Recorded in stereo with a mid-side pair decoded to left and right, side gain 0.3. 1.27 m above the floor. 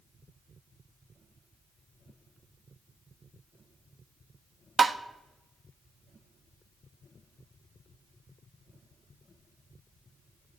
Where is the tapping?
45° right, 1.3 m.